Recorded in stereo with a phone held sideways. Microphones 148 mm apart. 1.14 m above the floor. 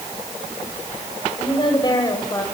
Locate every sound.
1.4 s a woman speaking: 35° left (ahead or behind), 5.5 m; by 2.4 s 20° left (ahead or behind), 5.5 m